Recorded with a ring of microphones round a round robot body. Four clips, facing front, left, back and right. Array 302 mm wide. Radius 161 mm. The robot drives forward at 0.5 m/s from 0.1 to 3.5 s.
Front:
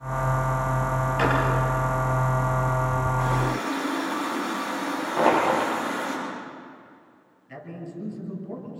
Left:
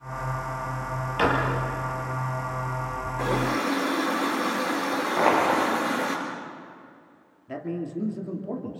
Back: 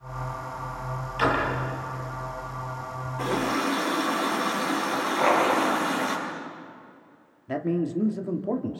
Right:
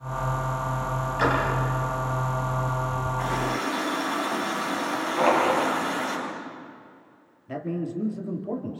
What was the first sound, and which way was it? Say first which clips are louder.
A drawer: left 1 dB, even; 70° left.